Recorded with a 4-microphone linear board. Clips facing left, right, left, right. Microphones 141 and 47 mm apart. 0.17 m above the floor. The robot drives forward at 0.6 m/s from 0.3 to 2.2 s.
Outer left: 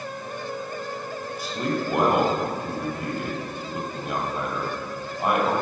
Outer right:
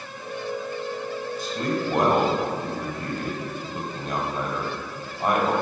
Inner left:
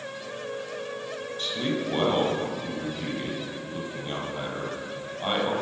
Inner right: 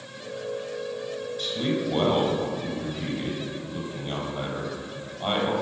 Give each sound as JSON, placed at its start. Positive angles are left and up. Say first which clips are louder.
{"t": 1.4, "sound": "a man speaking", "louder": "even, inner right 1 dB", "side_deg": 10, "distance_m": 3.5}